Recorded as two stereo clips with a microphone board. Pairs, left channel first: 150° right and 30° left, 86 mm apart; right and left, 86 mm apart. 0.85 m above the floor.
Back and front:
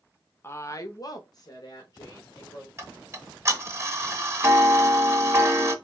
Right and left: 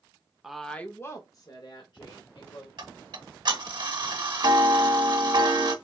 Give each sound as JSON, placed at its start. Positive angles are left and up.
{"t": 0.4, "sound": "a woman speaking", "azimuth_deg": 170, "distance_m": 0.6}
{"t": 2.8, "sound": "ticking", "azimuth_deg": 85, "distance_m": 0.9}